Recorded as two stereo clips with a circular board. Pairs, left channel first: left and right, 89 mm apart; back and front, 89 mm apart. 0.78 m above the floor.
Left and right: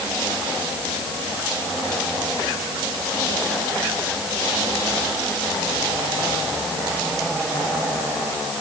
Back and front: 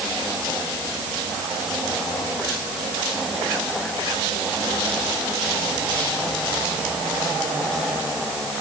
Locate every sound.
Only background noise.